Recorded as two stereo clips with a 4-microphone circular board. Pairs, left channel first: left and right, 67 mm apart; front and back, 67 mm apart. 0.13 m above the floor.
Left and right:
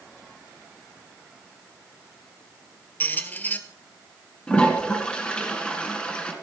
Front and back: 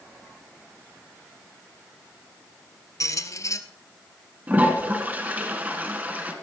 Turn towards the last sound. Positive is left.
turn(degrees=150)